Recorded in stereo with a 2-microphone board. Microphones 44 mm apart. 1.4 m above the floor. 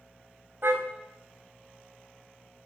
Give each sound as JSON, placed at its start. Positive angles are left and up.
{"t": 0.6, "sound": "a car horn", "side_deg": -55, "distance_m": 4.0}